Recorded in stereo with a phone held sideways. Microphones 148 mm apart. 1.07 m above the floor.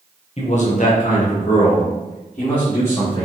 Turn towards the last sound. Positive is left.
turn(degrees=40)  # may be behind; listen again after turning